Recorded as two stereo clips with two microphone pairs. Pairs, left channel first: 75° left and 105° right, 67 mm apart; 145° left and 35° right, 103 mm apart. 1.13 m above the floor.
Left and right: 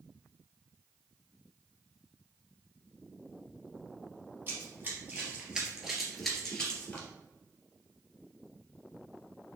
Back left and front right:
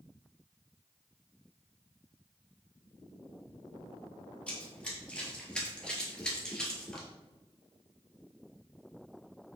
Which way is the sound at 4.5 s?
140° right.